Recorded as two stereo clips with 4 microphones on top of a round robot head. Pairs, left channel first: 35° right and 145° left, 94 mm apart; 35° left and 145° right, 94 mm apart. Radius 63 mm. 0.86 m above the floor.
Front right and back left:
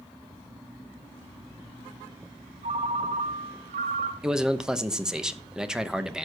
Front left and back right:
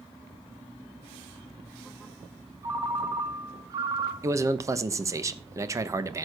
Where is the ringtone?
160° left, 1.5 m.